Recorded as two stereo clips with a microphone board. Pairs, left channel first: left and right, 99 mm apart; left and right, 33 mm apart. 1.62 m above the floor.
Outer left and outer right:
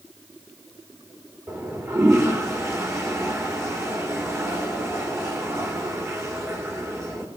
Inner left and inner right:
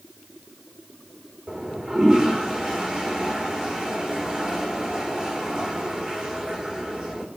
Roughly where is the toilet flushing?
Right.